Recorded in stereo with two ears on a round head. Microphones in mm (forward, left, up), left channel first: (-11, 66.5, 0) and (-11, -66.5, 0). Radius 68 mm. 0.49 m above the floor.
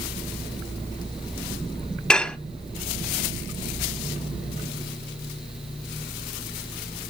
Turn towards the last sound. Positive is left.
turn(degrees=5)  # may be behind; listen again after turning